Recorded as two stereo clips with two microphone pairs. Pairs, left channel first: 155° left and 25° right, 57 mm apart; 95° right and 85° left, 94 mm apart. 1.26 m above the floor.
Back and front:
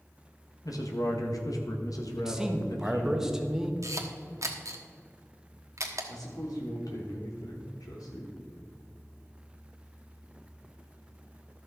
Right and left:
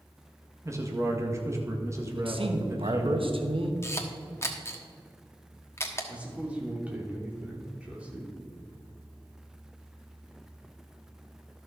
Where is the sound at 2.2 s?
55° left, 1.2 m.